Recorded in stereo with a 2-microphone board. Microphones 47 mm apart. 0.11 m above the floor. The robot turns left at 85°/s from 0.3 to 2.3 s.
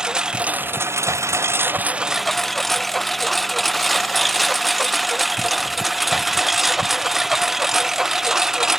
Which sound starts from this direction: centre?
A lawn mower, at 0.0 s.